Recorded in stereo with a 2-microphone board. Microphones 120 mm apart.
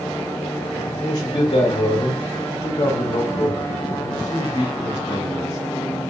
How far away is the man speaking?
About 0.7 m.